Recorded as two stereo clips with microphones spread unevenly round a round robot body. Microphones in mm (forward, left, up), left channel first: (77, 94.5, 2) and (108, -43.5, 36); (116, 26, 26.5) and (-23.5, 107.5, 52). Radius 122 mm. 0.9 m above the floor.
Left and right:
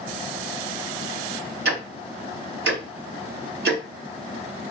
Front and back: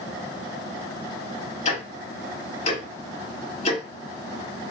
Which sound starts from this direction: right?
Ticking, at 1.6 s.